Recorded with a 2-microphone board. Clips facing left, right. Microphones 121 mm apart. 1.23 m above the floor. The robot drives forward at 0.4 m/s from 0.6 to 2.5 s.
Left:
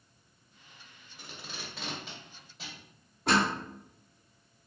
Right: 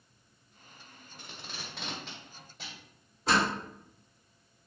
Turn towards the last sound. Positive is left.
turn(degrees=60)  # may be behind; listen again after turning